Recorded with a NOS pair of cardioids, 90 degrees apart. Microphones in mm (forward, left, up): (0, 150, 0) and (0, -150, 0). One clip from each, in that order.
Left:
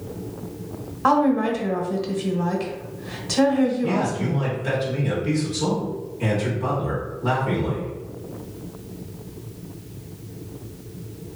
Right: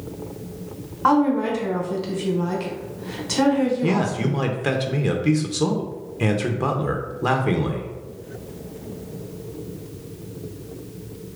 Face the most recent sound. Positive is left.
turn(degrees=-60)